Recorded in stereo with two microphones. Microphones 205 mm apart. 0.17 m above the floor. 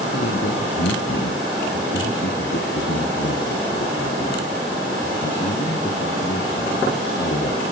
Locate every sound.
0.1 s a man speaking: 65° left (ahead or behind), 3.5 m; by 7.6 s 60° left (ahead or behind), 7 m